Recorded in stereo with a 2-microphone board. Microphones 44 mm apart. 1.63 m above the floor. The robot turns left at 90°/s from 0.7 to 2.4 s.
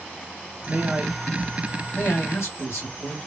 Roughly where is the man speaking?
Behind right.